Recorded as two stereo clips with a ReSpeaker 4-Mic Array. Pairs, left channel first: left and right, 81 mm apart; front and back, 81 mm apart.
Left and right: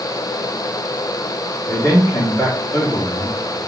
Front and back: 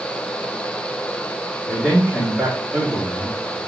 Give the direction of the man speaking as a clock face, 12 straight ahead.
9 o'clock.